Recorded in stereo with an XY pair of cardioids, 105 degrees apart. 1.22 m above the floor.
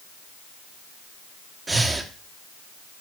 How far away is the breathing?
About 1.6 m.